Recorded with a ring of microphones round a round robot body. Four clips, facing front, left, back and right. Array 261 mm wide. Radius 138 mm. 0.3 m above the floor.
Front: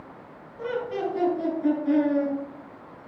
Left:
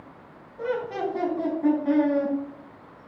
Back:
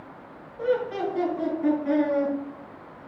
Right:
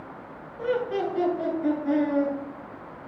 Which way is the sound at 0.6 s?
85° left.